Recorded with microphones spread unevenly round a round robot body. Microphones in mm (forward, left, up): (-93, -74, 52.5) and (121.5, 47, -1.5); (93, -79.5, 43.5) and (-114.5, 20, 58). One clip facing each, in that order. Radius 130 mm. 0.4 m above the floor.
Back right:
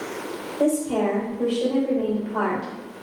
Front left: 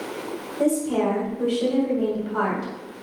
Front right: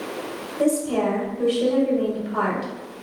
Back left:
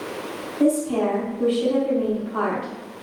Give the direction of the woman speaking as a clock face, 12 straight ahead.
1 o'clock.